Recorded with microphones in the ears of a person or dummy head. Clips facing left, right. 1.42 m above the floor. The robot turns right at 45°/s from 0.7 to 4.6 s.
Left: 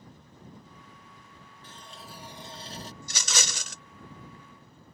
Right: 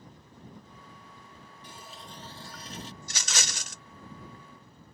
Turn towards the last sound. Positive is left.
turn(degrees=165)